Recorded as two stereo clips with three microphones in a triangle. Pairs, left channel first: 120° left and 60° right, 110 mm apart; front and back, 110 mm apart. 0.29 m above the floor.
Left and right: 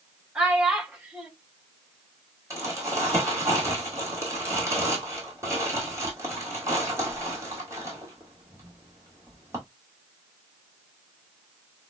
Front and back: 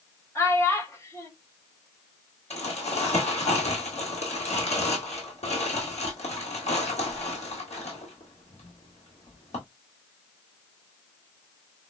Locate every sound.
0.3 s a child speaking: 10° left, 0.7 m
2.5 s crumpling: 5° left, 2 m